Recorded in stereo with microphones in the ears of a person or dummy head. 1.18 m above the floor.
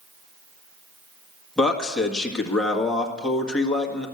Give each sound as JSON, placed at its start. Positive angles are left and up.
{"t": 1.6, "sound": "a man speaking", "side_deg": 5, "distance_m": 1.6}